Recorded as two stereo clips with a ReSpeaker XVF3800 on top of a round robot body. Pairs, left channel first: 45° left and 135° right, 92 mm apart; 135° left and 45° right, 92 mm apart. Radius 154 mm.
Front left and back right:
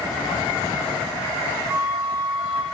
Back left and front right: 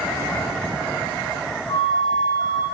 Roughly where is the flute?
Behind.